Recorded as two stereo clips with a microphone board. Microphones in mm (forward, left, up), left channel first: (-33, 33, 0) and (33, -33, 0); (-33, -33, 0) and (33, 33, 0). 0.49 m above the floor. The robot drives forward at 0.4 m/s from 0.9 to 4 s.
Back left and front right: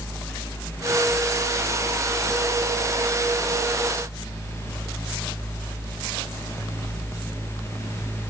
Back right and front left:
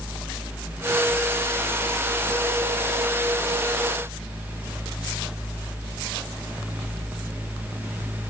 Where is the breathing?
No breathing in this recording.